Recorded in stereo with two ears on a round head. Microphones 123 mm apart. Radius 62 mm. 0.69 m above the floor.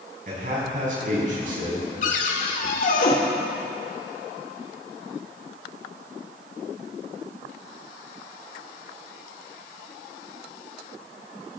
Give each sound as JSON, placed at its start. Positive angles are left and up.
{"t": 0.3, "sound": "a man speaking", "side_deg": -60, "distance_m": 6.0}
{"t": 2.0, "sound": "a cupboard door", "side_deg": 60, "distance_m": 1.9}